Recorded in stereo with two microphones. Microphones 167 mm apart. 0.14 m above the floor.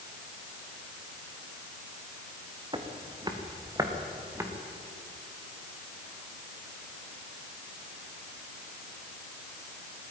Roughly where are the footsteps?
Right.